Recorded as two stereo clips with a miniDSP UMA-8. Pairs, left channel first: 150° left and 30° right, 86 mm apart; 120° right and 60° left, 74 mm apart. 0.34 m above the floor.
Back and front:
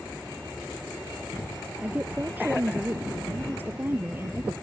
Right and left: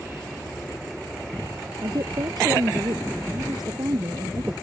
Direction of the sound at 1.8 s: 40° left.